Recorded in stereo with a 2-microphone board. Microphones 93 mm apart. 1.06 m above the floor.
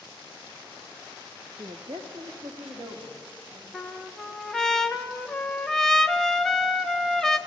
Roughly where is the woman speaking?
Right.